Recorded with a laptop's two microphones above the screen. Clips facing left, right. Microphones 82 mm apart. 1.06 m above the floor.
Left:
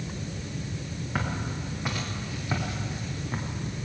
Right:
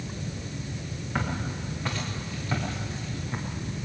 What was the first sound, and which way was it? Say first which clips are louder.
Footsteps: right 1 dB; 5° left (ahead or behind).